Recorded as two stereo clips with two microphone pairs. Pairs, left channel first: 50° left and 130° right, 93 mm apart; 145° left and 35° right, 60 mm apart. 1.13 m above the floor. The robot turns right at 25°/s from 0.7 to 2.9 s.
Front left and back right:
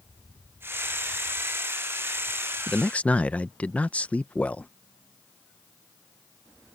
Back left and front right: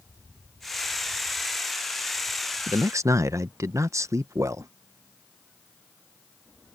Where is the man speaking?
30° right; by 4.7 s 25° right.